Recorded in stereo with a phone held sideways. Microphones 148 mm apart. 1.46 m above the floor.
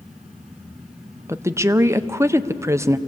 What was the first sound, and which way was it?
A fan, 5° right (ahead or behind).